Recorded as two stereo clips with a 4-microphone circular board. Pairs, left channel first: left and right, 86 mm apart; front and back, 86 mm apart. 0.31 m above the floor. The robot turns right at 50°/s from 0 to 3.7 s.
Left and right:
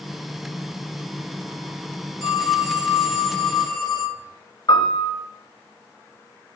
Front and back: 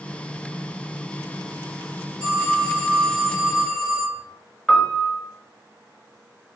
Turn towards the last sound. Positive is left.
turn(degrees=80)